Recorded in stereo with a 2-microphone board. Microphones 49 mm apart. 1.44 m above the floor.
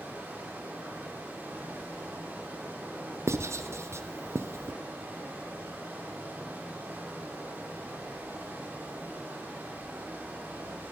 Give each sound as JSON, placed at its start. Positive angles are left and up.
{"t": 0.0, "sound": "running water", "side_deg": -40, "distance_m": 4.5}
{"t": 3.3, "sound": "writing", "side_deg": -60, "distance_m": 0.6}